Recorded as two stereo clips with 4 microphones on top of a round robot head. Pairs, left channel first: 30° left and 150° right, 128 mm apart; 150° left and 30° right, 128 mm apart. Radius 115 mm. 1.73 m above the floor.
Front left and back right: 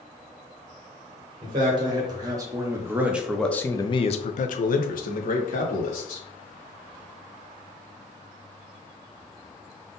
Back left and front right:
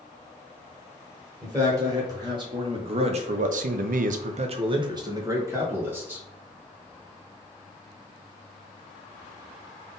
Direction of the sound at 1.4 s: 95° right.